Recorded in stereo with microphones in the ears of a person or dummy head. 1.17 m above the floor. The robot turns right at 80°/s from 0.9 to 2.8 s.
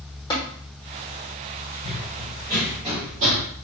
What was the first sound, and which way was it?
Tapping, 20° left (ahead or behind).